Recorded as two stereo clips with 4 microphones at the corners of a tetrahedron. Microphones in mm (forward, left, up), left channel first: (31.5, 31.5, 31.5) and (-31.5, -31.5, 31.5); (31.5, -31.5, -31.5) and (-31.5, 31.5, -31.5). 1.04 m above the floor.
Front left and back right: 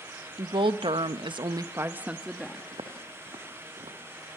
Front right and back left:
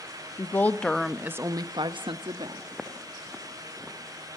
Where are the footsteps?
140° right, 4.5 m; by 4.0 s 130° right, 5 m.